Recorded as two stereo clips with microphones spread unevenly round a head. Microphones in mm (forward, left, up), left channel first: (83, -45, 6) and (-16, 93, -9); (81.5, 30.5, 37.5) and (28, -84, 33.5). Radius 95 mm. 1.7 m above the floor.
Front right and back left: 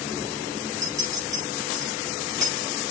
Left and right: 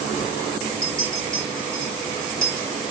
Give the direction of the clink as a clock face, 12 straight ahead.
5 o'clock.